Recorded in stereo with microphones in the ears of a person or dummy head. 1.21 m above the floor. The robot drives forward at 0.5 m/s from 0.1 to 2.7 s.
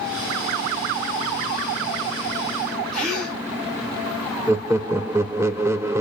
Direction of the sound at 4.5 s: 10° right (ahead or behind).